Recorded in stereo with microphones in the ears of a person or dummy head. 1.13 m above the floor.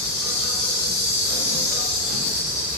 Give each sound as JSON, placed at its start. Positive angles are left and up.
{"t": 0.0, "sound": "an insect", "side_deg": 40, "distance_m": 1.7}